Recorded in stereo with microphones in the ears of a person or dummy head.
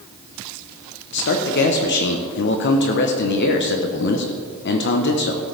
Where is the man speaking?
55° left (ahead or behind), 1.0 m.